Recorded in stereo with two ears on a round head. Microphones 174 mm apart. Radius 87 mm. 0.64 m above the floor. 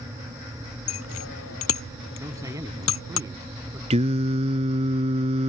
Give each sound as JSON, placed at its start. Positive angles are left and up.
{"t": 0.9, "sound": "a bicycle bell", "side_deg": 90}
{"t": 2.2, "sound": "a man speaking", "side_deg": -15}
{"t": 3.9, "sound": "singing", "side_deg": -35}